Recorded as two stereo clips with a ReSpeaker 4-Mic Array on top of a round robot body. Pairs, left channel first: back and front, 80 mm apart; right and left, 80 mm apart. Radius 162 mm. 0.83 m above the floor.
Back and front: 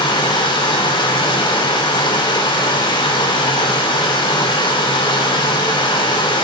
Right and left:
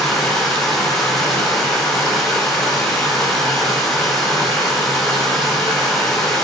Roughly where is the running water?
Behind.